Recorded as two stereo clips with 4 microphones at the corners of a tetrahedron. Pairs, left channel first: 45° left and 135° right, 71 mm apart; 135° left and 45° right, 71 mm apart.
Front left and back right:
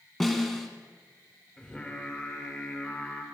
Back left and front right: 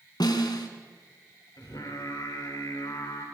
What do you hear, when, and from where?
0.2 s a snare drum: 130° left, 2 m
1.6 s singing: 120° left, 3 m